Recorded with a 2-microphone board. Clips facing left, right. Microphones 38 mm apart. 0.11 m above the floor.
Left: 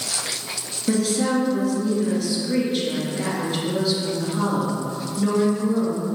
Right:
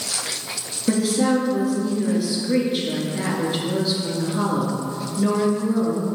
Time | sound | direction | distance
0.9 | a woman speaking | 15° right (ahead or behind) | 2.0 m